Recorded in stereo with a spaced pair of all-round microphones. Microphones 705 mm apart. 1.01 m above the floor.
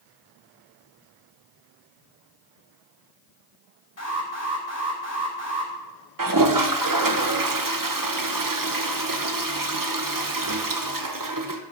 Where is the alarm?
60° left (ahead or behind), 3 m.